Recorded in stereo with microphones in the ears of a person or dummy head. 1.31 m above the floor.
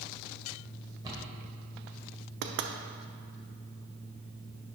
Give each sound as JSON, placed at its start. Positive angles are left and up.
{"t": 1.0, "sound": "a cupboard door", "side_deg": -20, "distance_m": 1.8}
{"t": 2.4, "sound": "knocking", "side_deg": -60, "distance_m": 0.6}